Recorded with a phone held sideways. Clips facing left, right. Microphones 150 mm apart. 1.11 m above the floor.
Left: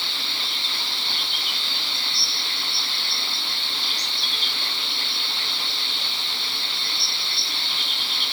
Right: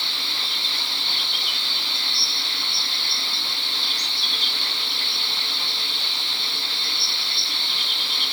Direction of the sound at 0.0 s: 25° right (ahead or behind).